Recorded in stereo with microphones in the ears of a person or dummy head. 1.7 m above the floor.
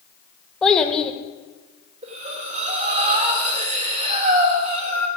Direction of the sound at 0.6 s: 10° left (ahead or behind).